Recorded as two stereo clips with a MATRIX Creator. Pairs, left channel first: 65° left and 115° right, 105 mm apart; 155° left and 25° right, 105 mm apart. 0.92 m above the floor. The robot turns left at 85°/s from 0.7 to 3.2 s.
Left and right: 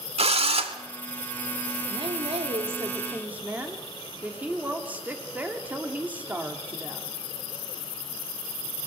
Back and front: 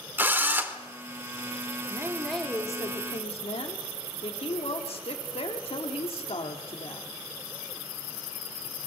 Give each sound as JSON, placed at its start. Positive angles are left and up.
{"t": 0.2, "sound": "a drill", "azimuth_deg": -95, "distance_m": 1.6}
{"t": 1.9, "sound": "a woman speaking", "azimuth_deg": -75, "distance_m": 2.5}